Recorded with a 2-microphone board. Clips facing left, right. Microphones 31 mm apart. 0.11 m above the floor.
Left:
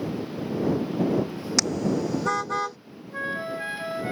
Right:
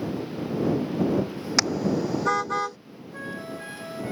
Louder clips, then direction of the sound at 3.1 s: Left 6 dB; 30° left (ahead or behind).